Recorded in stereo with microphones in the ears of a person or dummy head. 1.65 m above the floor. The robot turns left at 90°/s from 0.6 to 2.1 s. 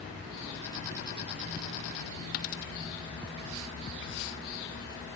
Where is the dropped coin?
50° left (ahead or behind), 1.6 m.